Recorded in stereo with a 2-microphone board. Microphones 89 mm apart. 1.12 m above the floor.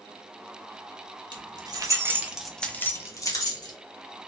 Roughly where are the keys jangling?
Right.